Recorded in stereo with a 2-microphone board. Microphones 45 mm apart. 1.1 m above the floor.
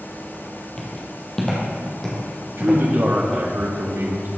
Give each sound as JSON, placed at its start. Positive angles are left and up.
{"t": 0.8, "sound": "footsteps", "side_deg": 20, "distance_m": 2.0}
{"t": 2.6, "sound": "a man speaking", "side_deg": -65, "distance_m": 1.4}